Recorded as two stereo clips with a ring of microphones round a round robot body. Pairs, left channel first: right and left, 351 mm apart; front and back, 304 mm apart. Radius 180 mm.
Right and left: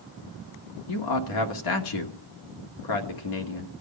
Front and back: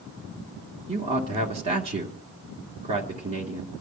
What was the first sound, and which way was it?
A man speaking, 110° right.